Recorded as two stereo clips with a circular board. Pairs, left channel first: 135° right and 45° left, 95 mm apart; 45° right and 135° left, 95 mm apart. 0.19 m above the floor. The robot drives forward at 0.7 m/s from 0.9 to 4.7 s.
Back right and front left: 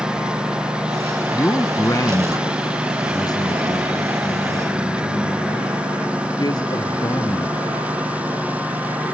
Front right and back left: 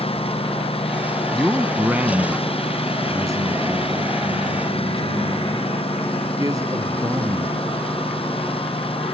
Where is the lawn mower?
35° right; by 9.2 s 30° right.